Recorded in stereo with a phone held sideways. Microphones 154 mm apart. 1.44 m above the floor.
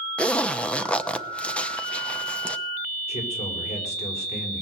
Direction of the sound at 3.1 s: 45° left (ahead or behind).